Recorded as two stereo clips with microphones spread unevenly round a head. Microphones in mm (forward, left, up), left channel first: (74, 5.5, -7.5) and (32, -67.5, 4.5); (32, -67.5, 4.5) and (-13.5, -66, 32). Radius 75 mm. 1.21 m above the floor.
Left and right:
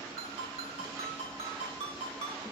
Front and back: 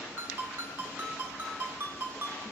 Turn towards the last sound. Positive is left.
turn(degrees=-150)